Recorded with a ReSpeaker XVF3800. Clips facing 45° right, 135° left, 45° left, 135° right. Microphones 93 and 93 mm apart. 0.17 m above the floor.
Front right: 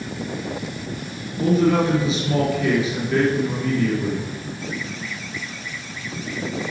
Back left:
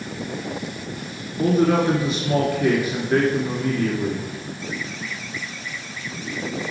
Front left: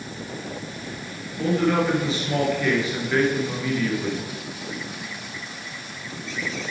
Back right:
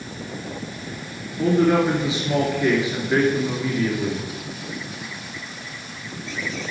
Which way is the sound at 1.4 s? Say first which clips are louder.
Even, back right 4 dB; 155° left.